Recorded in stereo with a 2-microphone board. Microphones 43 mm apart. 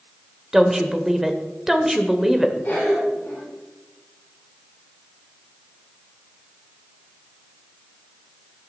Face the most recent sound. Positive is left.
turn(degrees=50)  # may be behind; listen again after turning